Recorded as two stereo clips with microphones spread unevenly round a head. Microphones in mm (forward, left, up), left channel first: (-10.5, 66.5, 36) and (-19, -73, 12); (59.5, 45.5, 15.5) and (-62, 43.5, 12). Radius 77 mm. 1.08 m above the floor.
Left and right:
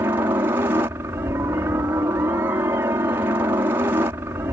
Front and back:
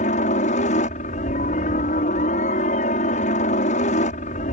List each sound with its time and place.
0.0 s a helicopter: 20° right